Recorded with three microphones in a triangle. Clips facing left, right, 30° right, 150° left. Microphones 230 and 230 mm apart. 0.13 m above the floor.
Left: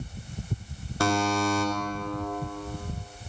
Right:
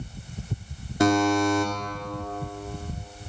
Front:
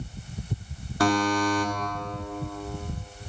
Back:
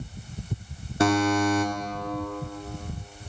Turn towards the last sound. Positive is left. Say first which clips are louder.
# right 5 dB, back 2 dB
turn(degrees=-150)